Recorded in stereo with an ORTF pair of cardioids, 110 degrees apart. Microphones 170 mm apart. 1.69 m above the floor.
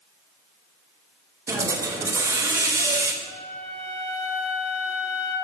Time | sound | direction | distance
1.5 | a hiss | 15° right | 1.0 m
3.2 | a flute | 50° left | 2.5 m